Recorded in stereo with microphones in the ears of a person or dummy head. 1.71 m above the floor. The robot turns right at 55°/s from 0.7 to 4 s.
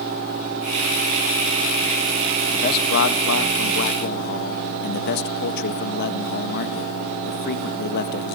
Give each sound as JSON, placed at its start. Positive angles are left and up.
{"t": 2.5, "sound": "a man speaking", "azimuth_deg": 40, "distance_m": 1.7}